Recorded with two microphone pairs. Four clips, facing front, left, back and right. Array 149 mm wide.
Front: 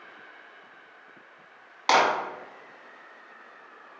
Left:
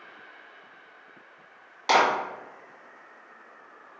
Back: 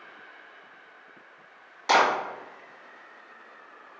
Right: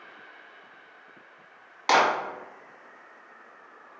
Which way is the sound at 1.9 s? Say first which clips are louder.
Even, even; straight ahead.